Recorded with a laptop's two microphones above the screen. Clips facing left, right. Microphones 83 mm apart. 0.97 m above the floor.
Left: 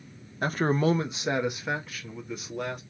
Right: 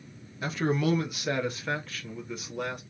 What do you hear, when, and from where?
0.4 s a man speaking: 50° left (ahead or behind), 0.7 m; by 2.8 s centre (ahead or behind), 1.7 m